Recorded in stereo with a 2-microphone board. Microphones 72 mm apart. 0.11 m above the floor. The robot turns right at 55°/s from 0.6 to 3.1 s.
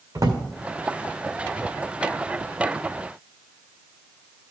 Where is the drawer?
50° right (ahead or behind), 1.8 m.